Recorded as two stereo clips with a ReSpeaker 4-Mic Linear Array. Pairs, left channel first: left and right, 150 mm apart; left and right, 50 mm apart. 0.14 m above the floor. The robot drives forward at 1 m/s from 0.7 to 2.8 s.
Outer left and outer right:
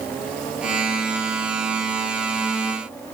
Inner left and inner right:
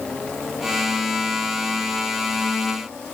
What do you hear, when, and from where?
Only background noise.